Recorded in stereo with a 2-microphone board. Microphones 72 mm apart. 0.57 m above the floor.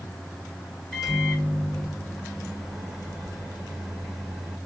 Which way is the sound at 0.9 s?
Centre (ahead or behind).